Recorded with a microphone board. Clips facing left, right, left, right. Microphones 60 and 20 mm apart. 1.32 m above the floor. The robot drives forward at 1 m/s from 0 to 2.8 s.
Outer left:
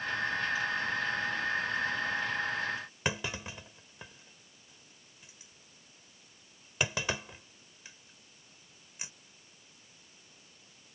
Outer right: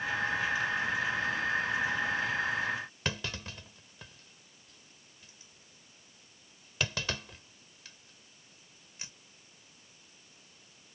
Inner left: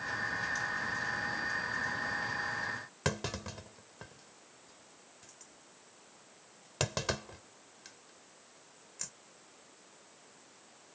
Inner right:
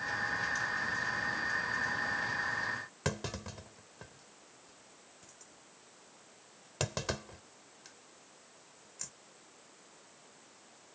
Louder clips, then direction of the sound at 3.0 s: Outer left 4 dB, inner left 3 dB; 15° left (ahead or behind).